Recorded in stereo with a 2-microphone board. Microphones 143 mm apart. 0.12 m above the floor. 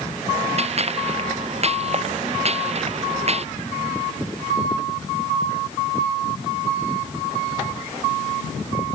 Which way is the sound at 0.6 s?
50° right (ahead or behind).